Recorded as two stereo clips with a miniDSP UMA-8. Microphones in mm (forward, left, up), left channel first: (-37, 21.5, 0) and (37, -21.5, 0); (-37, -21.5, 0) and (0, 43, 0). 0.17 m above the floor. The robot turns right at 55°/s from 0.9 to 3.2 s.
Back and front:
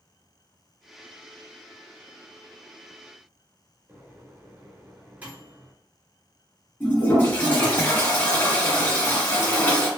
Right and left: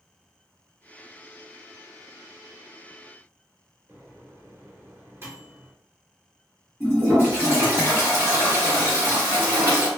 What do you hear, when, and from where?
3.9 s a microwave: 35° left, 1.4 m
6.8 s a toilet flushing: 100° left, 1.9 m